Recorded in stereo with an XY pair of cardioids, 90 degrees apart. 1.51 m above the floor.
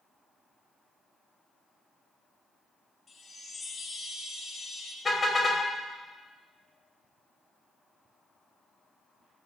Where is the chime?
40° left, 2.5 m.